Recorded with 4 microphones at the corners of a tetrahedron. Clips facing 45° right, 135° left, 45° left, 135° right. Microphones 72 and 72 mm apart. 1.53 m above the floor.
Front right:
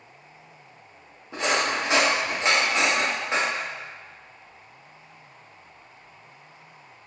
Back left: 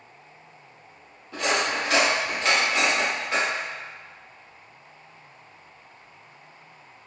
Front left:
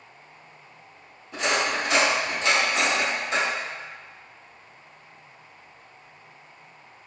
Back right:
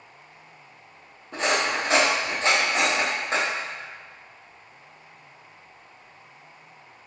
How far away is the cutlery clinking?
About 1.0 m.